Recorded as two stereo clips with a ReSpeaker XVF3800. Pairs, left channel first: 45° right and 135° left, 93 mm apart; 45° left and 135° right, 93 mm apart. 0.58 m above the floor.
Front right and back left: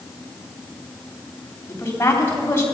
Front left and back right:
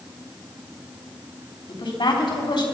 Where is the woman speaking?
20° left, 3 m.